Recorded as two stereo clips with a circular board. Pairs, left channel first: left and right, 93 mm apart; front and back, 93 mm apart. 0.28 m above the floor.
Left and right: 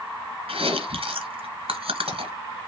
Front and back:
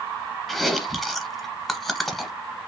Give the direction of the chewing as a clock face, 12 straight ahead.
3 o'clock.